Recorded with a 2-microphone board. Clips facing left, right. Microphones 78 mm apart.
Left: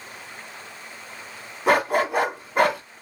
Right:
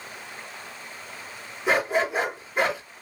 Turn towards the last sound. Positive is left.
turn(degrees=60)  # may be behind; listen again after turning